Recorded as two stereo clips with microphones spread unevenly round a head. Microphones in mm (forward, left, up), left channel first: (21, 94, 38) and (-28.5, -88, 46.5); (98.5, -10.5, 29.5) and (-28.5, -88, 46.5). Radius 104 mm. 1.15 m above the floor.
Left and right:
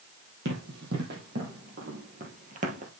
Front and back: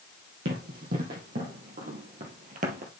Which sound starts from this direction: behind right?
Running footsteps, at 0.5 s.